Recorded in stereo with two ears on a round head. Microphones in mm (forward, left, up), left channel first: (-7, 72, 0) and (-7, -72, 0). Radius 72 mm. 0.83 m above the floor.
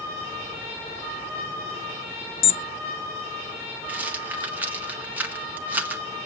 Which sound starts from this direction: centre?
A rattle, at 3.9 s.